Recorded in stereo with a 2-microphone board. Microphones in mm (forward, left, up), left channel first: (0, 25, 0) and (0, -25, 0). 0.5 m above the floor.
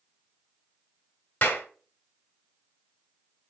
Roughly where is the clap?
Left.